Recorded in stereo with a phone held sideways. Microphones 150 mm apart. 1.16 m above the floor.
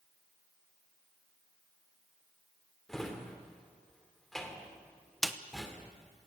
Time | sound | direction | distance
2.9 | a drawer | 5° left (ahead or behind) | 2.5 m
5.2 | a snare drum | centre (ahead or behind) | 0.9 m